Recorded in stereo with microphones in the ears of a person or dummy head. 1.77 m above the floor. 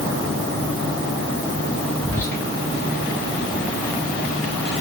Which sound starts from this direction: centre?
Whispering, at 2.0 s.